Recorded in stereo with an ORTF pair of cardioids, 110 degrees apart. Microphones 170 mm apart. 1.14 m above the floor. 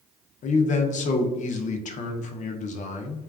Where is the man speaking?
45° left, 0.5 m.